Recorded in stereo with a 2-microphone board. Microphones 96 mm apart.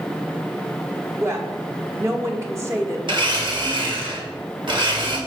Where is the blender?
60° right (ahead or behind), 1.8 m.